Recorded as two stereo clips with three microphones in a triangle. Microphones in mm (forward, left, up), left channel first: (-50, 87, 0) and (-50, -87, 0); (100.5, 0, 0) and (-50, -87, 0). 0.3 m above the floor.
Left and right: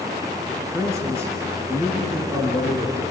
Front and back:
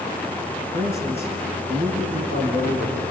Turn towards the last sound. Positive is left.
turn(degrees=-165)